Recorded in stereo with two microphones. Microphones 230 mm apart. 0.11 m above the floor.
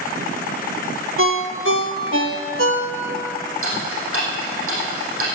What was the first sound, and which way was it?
A ringtone, 65° right (ahead or behind).